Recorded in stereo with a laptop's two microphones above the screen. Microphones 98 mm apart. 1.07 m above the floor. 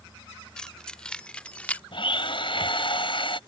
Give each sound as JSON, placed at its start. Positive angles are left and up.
{"t": 0.6, "sound": "keys jangling", "side_deg": 10}
{"t": 1.9, "sound": "a blender", "side_deg": 60}